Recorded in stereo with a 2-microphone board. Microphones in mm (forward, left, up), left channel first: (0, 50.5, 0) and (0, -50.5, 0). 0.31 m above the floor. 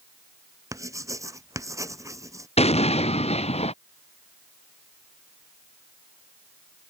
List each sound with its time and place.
0.7 s writing: 30° right (ahead or behind)
2.6 s an explosion: 90° left